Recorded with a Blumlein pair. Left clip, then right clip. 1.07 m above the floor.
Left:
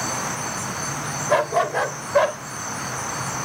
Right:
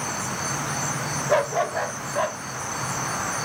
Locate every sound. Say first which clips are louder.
1.3 s a dog barking: left 3 dB; 15° left, 1.6 m; by 2.4 s 60° left, 1.8 m